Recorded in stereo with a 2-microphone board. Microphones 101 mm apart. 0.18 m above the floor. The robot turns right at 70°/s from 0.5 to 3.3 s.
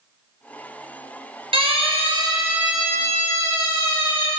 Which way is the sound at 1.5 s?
60° right (ahead or behind).